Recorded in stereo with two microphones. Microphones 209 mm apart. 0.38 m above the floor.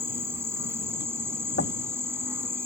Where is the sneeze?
I don't hear a sneeze.